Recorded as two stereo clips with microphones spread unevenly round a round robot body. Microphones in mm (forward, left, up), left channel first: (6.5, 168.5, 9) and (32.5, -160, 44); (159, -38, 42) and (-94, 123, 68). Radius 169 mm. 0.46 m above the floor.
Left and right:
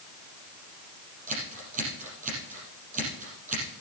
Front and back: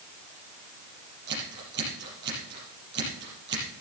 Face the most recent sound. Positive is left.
turn(degrees=-155)